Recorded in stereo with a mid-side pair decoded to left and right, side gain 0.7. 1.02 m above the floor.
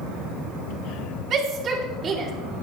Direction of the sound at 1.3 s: 45° right.